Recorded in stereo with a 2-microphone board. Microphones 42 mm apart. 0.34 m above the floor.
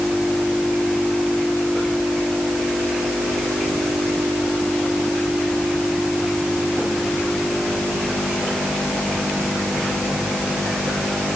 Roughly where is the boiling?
I don't hear boiling.